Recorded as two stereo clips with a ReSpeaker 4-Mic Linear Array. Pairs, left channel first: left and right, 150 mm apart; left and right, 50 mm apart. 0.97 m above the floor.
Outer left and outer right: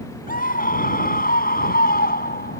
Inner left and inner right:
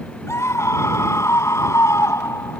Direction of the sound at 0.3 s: 70° left (ahead or behind).